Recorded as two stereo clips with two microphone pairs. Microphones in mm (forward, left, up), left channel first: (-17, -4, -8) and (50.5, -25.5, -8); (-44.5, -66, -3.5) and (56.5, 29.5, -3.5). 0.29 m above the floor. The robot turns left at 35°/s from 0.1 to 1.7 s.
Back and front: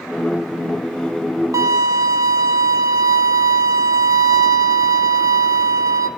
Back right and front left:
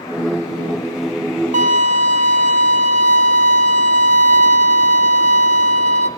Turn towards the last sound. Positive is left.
turn(degrees=10)